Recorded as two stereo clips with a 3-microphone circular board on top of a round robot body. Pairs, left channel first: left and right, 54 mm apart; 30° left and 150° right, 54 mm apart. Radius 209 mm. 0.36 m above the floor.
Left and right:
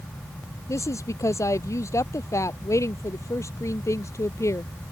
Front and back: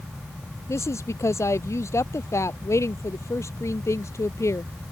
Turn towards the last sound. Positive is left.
turn(degrees=60)